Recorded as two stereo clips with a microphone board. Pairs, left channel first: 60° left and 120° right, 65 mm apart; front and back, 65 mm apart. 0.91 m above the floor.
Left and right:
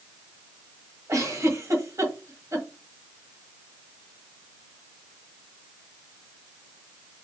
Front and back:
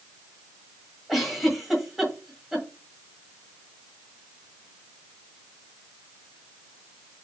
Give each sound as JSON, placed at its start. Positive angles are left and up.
{"t": 1.1, "sound": "a giggle", "azimuth_deg": -95, "distance_m": 1.4}